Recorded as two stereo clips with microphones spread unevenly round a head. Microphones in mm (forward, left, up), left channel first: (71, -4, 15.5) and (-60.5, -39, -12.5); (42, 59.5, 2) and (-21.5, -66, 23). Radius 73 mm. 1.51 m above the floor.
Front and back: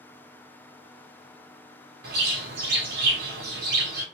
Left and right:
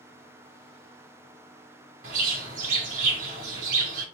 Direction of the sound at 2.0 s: 155° right.